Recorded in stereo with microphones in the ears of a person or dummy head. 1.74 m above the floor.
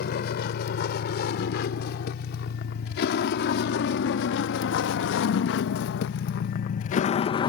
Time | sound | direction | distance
0.0 | a vehicle | 55° left (ahead or behind) | ?